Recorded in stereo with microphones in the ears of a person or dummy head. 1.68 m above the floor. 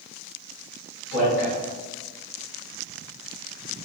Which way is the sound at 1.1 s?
65° left (ahead or behind).